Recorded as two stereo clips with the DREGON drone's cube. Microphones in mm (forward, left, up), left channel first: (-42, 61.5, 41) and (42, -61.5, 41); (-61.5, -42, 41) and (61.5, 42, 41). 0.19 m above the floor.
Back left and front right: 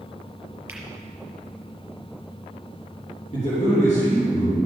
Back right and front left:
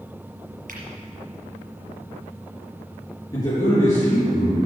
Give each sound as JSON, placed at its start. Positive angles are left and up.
{"t": 0.7, "sound": "a finger snap", "azimuth_deg": 25, "distance_m": 3.5}
{"t": 3.3, "sound": "a man speaking", "azimuth_deg": 150, "distance_m": 4.0}